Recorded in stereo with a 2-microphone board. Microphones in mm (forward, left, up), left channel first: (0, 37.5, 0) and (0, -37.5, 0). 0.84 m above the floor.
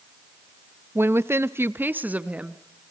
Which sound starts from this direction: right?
A woman speaking, at 0.9 s.